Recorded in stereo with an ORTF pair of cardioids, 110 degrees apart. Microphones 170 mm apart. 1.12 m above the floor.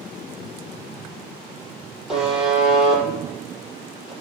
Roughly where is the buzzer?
Ahead.